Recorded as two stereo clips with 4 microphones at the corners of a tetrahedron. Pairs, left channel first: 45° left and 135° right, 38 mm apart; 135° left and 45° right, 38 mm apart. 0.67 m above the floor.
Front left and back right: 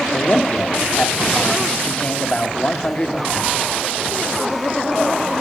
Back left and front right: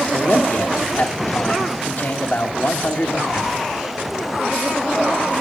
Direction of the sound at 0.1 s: 100° left.